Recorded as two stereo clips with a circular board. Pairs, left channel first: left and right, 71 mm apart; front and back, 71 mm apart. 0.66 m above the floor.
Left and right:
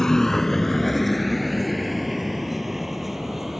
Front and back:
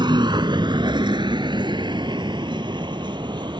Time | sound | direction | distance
0.0 | a vehicle | 175° left | ?